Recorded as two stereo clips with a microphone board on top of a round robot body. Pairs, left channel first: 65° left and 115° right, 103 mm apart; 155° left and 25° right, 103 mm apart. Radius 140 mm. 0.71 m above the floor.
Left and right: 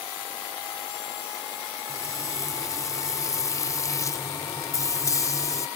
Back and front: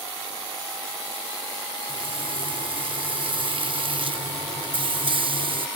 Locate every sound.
1.9 s frying: 10° left